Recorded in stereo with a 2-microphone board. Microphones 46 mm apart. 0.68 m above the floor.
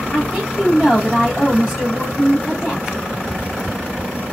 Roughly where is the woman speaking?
Centre.